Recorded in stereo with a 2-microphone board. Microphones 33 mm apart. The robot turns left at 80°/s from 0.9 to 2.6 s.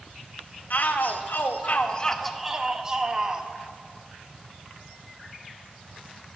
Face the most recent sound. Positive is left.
turn(degrees=-20)